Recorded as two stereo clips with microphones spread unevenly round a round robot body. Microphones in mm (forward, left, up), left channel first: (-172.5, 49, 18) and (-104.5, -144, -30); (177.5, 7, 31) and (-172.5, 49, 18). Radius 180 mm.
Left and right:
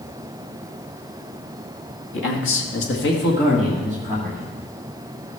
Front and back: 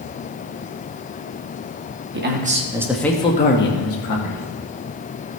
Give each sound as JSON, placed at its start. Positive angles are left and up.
{"t": 2.1, "sound": "a man speaking", "azimuth_deg": 125, "distance_m": 1.7}